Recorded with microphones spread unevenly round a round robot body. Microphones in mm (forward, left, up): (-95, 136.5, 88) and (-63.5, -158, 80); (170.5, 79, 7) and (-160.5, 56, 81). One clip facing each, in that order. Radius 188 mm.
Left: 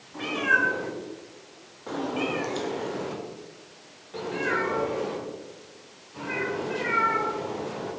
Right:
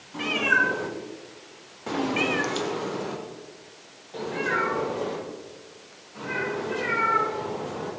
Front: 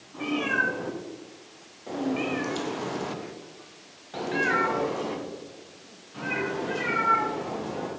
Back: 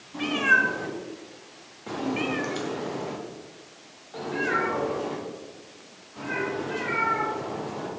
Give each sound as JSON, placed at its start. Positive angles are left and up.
{"t": 0.1, "sound": "a cat meowing", "azimuth_deg": -130, "distance_m": 1.6}